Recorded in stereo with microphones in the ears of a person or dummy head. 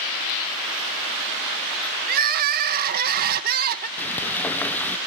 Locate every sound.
2.1 s crying: 55° right (ahead or behind)
4.0 s frying: 10° left (ahead or behind)